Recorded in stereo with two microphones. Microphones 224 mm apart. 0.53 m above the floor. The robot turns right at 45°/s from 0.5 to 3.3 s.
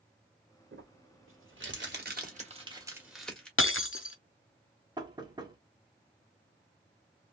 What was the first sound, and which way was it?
Crumpling, 60° right (ahead or behind).